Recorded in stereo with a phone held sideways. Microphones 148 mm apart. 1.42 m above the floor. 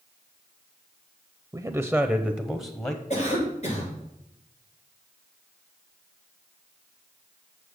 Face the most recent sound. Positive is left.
turn(degrees=50)  # may be behind; listen again after turning